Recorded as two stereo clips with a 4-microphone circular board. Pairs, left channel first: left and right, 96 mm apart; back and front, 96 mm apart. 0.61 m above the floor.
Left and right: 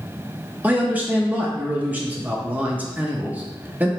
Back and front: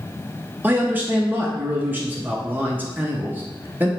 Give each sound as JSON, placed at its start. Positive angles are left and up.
{"t": 0.6, "sound": "a man speaking", "azimuth_deg": -40, "distance_m": 0.5}